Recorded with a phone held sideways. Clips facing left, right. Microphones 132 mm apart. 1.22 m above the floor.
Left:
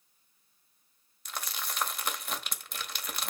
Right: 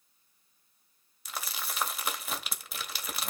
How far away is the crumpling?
About 1.4 m.